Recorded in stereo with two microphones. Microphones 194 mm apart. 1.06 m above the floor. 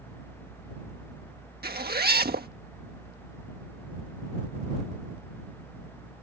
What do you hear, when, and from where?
1.6 s a zipper: 55° right (ahead or behind)